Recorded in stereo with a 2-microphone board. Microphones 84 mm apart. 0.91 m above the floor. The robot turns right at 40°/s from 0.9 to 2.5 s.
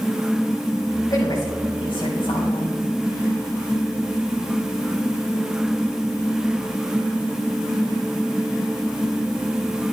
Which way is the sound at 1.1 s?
55° left.